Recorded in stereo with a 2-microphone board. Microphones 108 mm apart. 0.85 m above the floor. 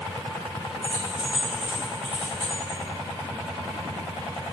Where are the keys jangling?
70° left (ahead or behind), 0.8 m.